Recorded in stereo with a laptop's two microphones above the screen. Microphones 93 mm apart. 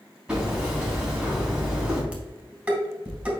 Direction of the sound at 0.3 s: 5° right (ahead or behind).